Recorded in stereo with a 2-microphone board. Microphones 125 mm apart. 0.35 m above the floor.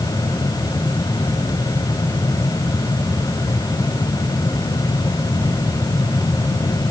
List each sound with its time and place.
Only background noise.